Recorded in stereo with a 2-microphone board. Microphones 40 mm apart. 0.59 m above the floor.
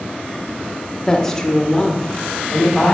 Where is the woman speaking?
15° left (ahead or behind), 0.8 m; by 2.9 s 10° left (ahead or behind), 2.5 m.